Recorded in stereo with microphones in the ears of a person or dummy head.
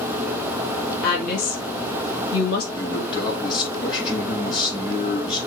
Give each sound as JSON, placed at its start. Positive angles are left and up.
{"t": 1.0, "sound": "a woman speaking", "side_deg": 55, "distance_m": 2.0}
{"t": 2.7, "sound": "a man speaking", "side_deg": 25, "distance_m": 6.0}